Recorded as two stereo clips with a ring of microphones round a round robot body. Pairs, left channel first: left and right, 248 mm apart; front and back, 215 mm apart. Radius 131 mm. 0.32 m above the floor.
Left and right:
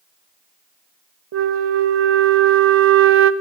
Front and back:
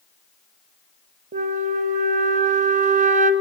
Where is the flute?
125° right, 1.0 m.